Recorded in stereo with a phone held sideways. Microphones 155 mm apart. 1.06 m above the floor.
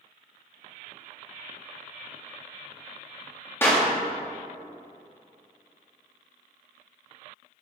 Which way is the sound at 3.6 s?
15° left (ahead or behind).